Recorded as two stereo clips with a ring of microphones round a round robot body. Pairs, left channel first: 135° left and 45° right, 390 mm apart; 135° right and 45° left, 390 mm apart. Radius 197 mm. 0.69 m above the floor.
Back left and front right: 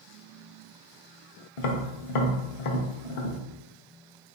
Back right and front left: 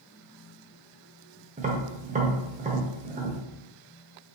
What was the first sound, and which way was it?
Tapping, 120° left.